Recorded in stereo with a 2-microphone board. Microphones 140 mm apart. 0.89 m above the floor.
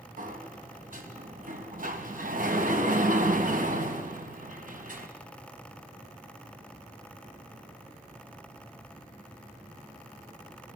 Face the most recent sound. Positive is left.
turn(degrees=-70)  # may be behind; listen again after turning